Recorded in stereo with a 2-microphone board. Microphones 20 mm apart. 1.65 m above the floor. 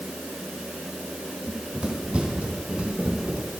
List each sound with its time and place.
1.5 s running footsteps: 55° right (ahead or behind), 4 m; by 3.4 s 70° right (ahead or behind), 4.5 m